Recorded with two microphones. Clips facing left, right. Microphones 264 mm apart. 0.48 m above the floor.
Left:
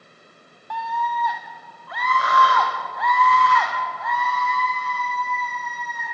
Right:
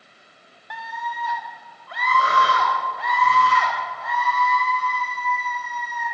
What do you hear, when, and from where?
0.7 s a scream: 20° right (ahead or behind), 1.0 m; by 6.0 s 30° right (ahead or behind), 5 m